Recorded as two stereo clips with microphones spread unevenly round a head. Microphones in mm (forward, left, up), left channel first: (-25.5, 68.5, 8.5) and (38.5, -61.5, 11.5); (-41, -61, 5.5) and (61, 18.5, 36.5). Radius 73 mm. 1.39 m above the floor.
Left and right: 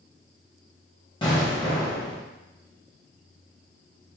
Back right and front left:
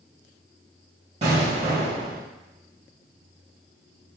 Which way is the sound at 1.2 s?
65° left.